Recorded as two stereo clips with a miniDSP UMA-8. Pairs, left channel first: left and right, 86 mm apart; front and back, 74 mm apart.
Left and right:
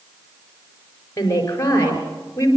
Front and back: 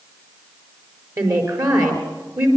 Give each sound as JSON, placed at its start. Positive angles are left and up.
{"t": 1.2, "sound": "a woman speaking", "azimuth_deg": 145, "distance_m": 4.5}